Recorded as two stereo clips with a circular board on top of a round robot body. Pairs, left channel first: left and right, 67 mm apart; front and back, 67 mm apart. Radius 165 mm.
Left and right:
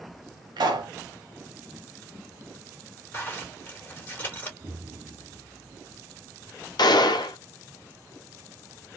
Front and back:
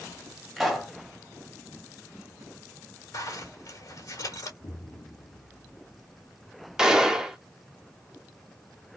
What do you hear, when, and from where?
0.6 s a pop: 90° right, 0.6 m
3.1 s a zipper: 30° left, 2.5 m
4.6 s an explosion: 25° right, 1.1 m
6.8 s a gunshot: 100° left, 0.7 m